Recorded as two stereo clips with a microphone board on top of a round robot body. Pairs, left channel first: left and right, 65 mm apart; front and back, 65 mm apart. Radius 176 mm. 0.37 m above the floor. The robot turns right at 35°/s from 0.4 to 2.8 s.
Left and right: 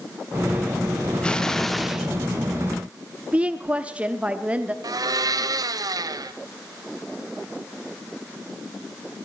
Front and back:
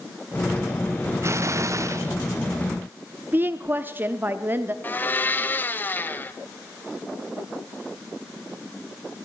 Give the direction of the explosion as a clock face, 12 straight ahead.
7 o'clock.